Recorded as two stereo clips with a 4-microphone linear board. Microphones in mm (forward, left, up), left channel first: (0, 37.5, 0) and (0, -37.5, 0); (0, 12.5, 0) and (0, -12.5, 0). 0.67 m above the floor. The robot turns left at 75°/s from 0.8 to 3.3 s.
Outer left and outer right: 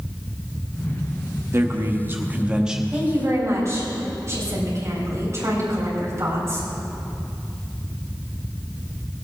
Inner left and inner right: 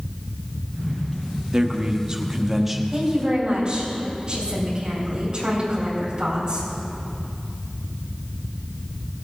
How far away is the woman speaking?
About 4 m.